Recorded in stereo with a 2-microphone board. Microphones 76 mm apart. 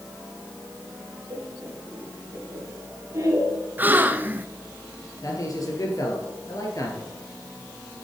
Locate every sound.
1.3 s laughter: 60° right (ahead or behind), 3.5 m; by 3.6 s 40° right (ahead or behind), 2 m
3.8 s a gasp: 25° right (ahead or behind), 0.6 m
5.2 s a man speaking: 50° left (ahead or behind), 2.5 m